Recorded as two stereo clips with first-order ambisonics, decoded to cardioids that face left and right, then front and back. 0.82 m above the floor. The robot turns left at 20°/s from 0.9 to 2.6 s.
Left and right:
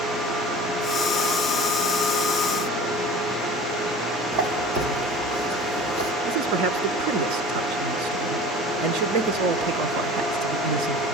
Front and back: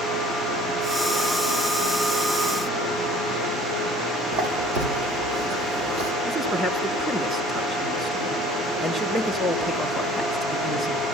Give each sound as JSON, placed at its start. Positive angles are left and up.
{"t": 4.3, "sound": "a squeak", "azimuth_deg": -150, "distance_m": 6.5}
{"t": 6.3, "sound": "a man speaking", "azimuth_deg": -105, "distance_m": 2.5}